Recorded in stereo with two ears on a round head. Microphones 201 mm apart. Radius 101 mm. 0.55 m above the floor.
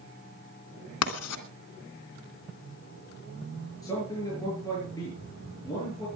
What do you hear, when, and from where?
1.0 s writing: 75° left (ahead or behind), 2.5 m
3.8 s a man speaking: 15° left (ahead or behind), 8 m